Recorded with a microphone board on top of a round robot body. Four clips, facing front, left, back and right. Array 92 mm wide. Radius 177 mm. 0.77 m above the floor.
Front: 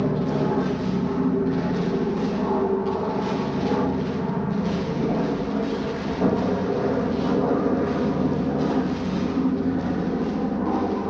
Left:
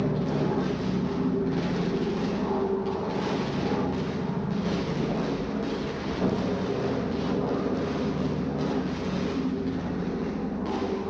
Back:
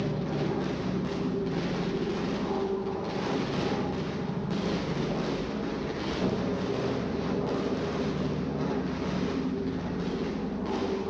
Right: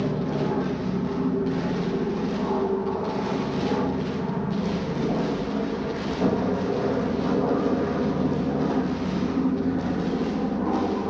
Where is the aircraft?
15° right; by 11.1 s 35° right.